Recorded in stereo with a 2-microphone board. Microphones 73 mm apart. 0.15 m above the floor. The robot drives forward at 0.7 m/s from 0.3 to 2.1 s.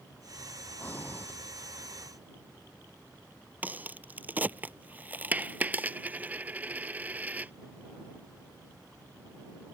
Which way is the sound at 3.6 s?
25° right (ahead or behind).